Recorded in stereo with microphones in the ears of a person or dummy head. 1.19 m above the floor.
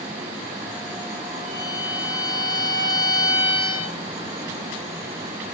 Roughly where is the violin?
Right.